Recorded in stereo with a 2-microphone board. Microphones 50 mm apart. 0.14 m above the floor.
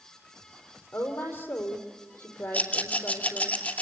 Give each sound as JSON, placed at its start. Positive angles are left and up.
{"t": 0.9, "sound": "a woman speaking", "side_deg": 55, "distance_m": 4.5}
{"t": 2.5, "sound": "a rattle", "side_deg": 35, "distance_m": 3.0}